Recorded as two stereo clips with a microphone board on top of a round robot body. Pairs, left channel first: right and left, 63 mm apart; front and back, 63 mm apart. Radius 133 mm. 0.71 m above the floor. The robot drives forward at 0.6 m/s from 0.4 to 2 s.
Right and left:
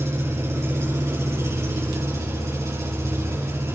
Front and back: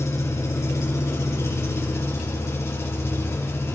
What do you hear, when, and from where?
0.0 s an engine running: 35° left, 8 m; by 3.8 s 40° left, 7 m